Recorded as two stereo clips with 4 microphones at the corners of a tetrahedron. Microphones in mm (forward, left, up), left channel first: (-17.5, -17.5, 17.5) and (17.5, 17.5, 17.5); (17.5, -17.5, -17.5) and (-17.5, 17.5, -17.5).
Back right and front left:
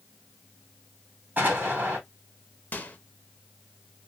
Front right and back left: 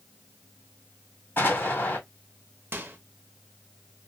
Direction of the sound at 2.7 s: 175° left.